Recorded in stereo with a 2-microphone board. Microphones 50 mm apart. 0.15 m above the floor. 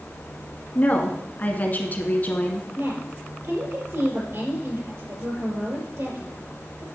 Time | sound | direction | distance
0.8 | a woman speaking | 35° left (ahead or behind) | 1.3 m
2.8 | a woman speaking | 55° right (ahead or behind) | 3.5 m